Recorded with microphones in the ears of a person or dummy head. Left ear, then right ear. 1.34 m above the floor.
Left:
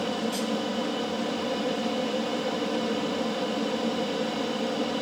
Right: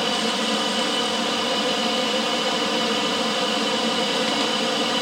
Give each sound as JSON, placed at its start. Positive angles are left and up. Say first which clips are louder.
{"t": 0.0, "sound": "an aircraft", "louder": "right 7 dB", "side_deg": -55}